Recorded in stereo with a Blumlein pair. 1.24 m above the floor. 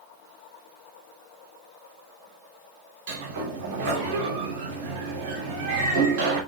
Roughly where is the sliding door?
Ahead right.